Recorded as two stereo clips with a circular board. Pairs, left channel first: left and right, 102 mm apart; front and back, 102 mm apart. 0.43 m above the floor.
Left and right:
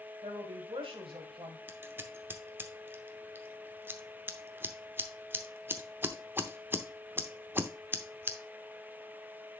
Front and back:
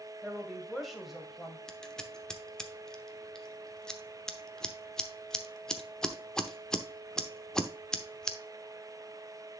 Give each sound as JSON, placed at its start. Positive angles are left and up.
{"t": 0.2, "sound": "a woman speaking", "azimuth_deg": -90, "distance_m": 1.8}
{"t": 1.7, "sound": "scissors", "azimuth_deg": -70, "distance_m": 0.8}